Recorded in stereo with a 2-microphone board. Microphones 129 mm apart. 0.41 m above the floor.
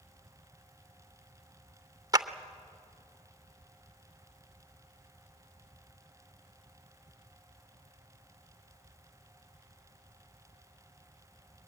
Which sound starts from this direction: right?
A clap, at 2.1 s.